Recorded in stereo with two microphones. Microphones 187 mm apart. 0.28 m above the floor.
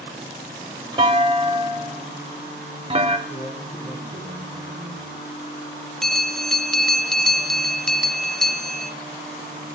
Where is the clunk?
30° right (ahead or behind), 1.1 m.